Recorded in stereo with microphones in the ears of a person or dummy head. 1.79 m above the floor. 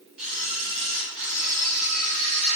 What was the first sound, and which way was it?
A camera shutter, centre (ahead or behind).